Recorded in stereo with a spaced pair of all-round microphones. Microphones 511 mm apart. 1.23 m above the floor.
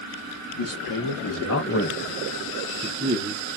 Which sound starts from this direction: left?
A man speaking, at 0.5 s.